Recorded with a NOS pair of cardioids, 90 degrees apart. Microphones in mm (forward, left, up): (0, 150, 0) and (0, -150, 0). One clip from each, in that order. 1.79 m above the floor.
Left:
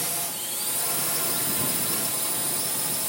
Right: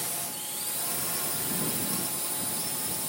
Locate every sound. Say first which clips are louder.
0.0 s a drone: left 4 dB; 30° left